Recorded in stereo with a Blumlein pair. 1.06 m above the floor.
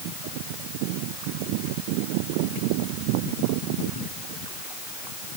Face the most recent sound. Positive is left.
No sound to turn to.